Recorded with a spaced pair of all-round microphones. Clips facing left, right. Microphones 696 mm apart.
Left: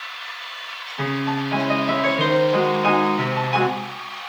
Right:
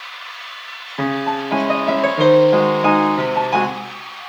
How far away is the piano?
About 0.9 m.